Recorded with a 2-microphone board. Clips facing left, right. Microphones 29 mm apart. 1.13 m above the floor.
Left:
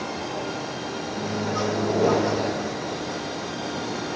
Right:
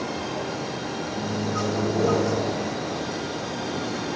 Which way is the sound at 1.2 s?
25° left (ahead or behind).